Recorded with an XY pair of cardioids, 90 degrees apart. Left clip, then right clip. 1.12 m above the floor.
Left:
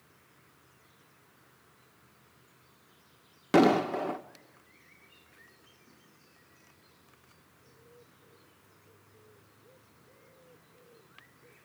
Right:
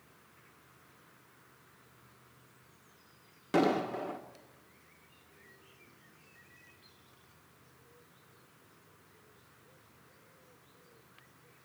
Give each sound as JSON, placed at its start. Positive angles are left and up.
{"t": 3.5, "sound": "an explosion", "azimuth_deg": 60, "distance_m": 1.3}